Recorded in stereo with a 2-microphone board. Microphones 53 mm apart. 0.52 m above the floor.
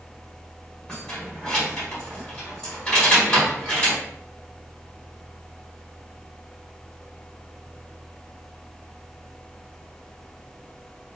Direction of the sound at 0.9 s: 15° left (ahead or behind).